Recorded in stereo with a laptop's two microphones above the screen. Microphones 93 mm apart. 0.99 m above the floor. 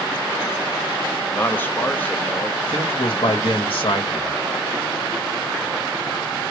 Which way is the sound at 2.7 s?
75° left (ahead or behind).